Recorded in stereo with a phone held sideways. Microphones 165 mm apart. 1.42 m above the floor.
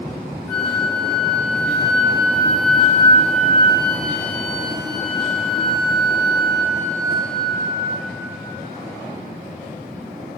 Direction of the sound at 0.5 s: 5° left (ahead or behind).